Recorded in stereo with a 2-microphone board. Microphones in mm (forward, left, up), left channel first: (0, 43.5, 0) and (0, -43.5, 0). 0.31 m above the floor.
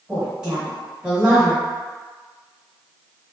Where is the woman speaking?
10° right (ahead or behind), 1.1 m.